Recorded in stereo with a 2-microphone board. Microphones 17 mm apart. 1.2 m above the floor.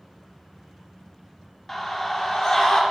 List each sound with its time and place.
1.7 s a scream: 20° left (ahead or behind), 2.5 m; by 2.8 s 30° left (ahead or behind), 3 m